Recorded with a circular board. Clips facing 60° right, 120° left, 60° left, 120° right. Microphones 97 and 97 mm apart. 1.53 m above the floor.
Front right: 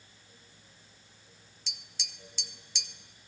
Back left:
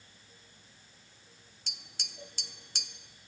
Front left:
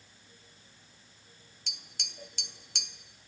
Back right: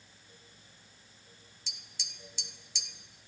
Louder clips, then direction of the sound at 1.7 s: Even, front left 4 dB; 85° left.